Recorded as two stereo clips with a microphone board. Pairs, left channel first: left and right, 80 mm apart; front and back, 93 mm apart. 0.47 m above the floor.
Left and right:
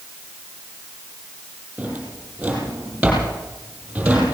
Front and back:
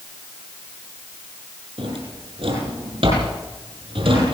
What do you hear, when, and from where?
1.8 s a drawer: 165° right, 7.5 m